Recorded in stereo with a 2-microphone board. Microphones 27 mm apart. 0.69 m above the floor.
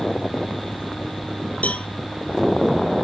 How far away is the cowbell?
About 1.5 m.